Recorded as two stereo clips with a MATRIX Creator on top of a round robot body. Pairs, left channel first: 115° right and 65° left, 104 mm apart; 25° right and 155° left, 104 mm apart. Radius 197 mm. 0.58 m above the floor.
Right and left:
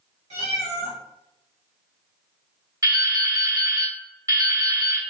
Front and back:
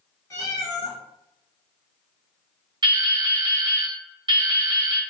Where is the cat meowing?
45° left, 1.1 m.